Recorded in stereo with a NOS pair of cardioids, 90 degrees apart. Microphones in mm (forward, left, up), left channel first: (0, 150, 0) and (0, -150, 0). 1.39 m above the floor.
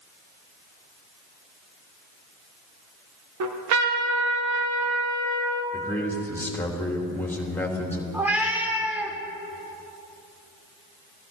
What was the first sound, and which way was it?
A trumpet, 70° right.